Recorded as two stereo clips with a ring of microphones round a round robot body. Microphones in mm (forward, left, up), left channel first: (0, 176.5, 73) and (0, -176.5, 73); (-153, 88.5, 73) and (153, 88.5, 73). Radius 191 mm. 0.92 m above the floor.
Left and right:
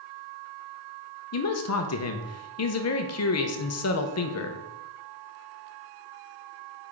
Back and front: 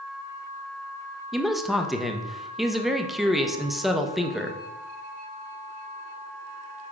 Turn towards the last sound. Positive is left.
turn(degrees=90)